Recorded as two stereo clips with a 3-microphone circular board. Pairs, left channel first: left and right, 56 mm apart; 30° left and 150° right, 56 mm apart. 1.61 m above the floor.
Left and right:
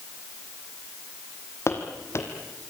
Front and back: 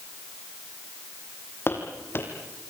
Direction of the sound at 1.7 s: 70° left.